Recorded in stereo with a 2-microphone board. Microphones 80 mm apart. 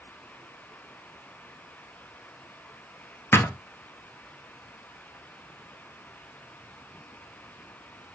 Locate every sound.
3.3 s a thud: 30° left (ahead or behind), 1.1 m